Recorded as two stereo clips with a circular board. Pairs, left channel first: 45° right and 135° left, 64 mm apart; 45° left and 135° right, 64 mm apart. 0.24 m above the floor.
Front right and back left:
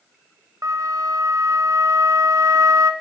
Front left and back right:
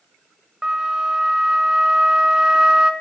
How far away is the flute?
About 0.5 m.